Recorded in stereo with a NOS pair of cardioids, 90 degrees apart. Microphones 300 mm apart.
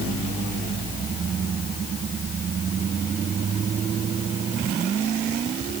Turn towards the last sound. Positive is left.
No sound to turn to.